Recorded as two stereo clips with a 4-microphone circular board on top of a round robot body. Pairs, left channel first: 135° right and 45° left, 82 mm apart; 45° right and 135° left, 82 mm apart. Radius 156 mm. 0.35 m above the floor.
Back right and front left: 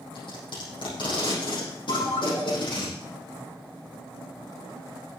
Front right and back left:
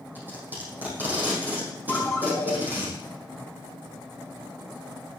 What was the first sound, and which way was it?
Tape being pulled, 160° right.